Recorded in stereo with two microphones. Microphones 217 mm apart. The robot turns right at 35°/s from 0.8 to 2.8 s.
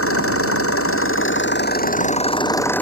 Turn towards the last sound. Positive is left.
turn(degrees=175)